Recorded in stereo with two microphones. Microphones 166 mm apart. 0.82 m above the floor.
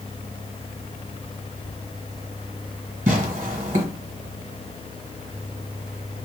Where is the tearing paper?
50° right (ahead or behind), 1.1 m.